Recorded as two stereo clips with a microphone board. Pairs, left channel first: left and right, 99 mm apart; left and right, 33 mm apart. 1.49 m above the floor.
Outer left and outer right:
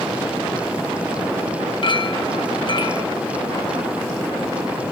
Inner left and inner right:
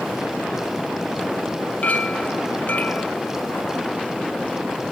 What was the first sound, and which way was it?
A clink, 55° left (ahead or behind).